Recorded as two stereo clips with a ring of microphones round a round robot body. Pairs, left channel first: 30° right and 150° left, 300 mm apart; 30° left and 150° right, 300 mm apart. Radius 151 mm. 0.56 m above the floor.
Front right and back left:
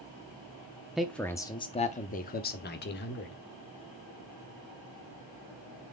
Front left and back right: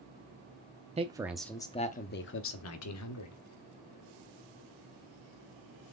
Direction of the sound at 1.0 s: 125° right.